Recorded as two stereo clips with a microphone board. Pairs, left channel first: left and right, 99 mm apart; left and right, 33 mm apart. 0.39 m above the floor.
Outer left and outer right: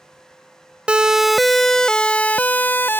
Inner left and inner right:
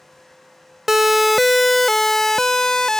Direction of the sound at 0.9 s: 10° right (ahead or behind).